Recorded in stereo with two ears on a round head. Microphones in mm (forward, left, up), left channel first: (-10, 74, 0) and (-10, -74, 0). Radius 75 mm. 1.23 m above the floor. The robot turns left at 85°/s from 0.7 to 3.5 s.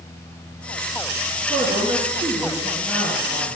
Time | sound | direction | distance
1.5 | a man speaking | 70° right | 2.5 m